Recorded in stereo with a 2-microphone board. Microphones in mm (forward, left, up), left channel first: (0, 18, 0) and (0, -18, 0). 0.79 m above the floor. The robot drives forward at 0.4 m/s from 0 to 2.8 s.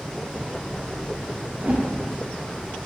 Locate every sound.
1.6 s a whoosh: 35° right (ahead or behind), 1.0 m; by 1.9 s 40° right (ahead or behind), 0.9 m